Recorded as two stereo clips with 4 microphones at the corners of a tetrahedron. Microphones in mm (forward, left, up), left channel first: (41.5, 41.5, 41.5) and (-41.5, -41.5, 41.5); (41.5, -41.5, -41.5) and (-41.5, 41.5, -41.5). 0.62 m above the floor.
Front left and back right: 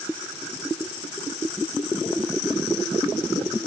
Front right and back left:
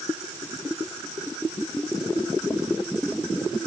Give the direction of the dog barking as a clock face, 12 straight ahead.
I don't hear a dog barking.